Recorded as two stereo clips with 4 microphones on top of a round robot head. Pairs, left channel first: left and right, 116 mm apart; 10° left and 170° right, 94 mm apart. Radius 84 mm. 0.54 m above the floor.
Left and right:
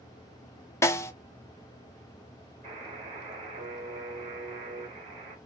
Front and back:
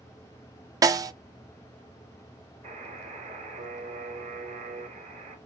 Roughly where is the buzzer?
Behind right.